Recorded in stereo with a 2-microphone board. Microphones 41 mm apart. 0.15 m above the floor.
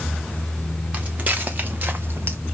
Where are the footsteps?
35° right (ahead or behind), 2 m; by 2.4 s 60° right (ahead or behind), 1.2 m.